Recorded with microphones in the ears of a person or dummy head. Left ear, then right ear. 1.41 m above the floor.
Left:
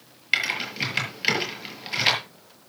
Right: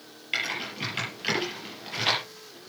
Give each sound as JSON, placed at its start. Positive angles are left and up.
{"t": 0.3, "sound": "typing on a keyboard", "side_deg": 35, "distance_m": 6.5}